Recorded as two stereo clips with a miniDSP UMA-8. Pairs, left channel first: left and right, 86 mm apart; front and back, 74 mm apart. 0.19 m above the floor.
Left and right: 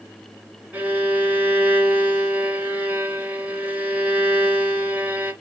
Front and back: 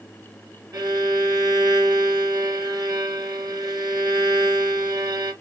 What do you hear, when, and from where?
0.7 s a violin: 160° right, 2.5 m